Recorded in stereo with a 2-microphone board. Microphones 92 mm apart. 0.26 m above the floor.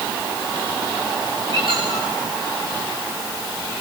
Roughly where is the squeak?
Right.